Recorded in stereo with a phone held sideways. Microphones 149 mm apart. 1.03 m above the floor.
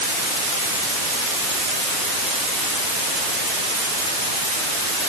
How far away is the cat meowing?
No cat meowing in this recording.